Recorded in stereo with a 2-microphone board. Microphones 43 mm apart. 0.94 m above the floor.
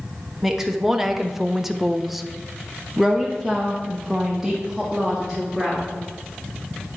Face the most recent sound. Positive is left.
turn(degrees=5)  # may be behind; listen again after turning